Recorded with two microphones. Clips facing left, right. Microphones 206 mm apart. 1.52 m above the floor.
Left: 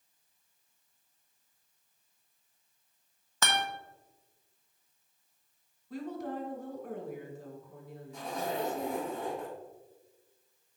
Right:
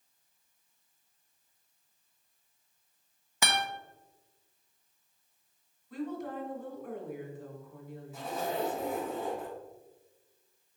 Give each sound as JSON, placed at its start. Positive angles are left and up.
{"t": 3.4, "sound": "a guitar", "side_deg": -10, "distance_m": 0.9}
{"t": 5.9, "sound": "a woman speaking", "side_deg": 60, "distance_m": 2.0}
{"t": 8.1, "sound": "a zipper", "side_deg": -5, "distance_m": 2.5}